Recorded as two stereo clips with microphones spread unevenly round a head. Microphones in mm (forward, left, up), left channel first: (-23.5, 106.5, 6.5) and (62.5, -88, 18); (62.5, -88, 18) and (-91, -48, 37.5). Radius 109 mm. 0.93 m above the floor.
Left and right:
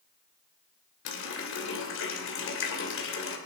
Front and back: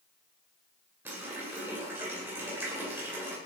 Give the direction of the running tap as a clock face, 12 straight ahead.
9 o'clock.